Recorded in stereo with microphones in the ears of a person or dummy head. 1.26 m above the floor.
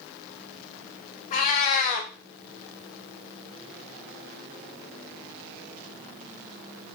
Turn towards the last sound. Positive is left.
turn(degrees=40)  # may be behind; listen again after turning